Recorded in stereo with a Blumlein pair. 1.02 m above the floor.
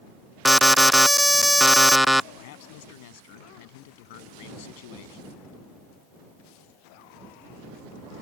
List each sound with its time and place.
0.5 s an alarm: straight ahead
2.4 s a man speaking: 50° left